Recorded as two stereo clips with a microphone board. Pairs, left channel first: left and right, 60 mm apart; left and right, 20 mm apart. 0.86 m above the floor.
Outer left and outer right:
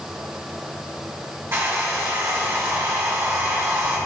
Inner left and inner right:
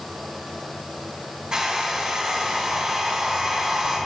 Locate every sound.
1.5 s a hair dryer: 45° right (ahead or behind), 4 m